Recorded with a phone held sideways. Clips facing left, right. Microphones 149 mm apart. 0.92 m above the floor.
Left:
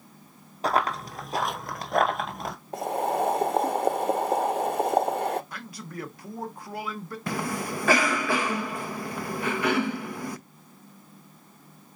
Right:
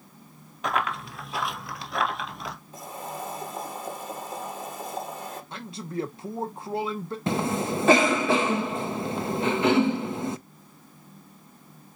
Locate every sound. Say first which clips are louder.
0.6 s running footsteps: left 3 dB; 35° left (ahead or behind), 1.2 m; by 2.5 s 50° left (ahead or behind), 1.4 m
2.7 s boiling: left 14 dB; 70° left (ahead or behind), 0.6 m
5.5 s a man speaking: right 6 dB; 25° right (ahead or behind), 0.7 m
7.3 s a cough: right 4 dB; 25° right (ahead or behind), 0.6 m